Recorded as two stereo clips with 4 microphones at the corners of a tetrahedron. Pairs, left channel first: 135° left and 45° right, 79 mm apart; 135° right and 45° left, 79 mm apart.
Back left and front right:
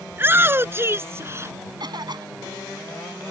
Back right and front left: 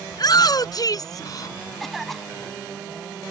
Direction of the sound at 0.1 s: 105° right.